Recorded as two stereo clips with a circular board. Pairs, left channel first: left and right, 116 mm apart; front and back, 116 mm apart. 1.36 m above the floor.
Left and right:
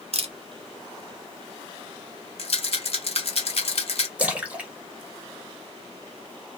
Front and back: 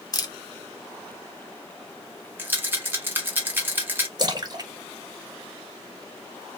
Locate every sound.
0.1 s a camera shutter: 55° right, 0.6 m
2.4 s a rattle: 110° left, 0.8 m
4.2 s a splash: 160° right, 0.7 m